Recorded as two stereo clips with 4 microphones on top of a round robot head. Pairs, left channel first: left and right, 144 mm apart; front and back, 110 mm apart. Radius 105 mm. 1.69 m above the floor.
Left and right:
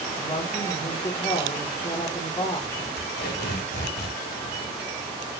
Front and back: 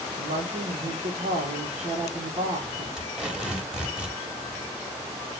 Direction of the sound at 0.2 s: 155° left.